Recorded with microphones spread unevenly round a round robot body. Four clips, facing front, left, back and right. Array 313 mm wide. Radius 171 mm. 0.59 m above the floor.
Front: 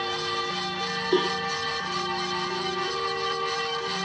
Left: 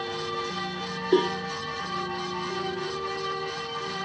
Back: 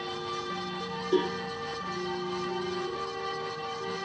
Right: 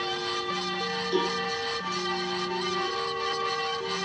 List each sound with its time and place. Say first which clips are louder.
1.1 s a cowbell: left 6 dB, front 2 dB; 80° left, 1.1 m